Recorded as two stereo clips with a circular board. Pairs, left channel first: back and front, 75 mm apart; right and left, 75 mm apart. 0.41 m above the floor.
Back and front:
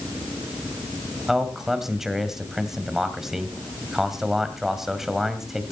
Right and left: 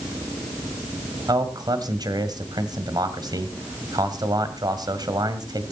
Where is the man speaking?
85° left, 1.7 m.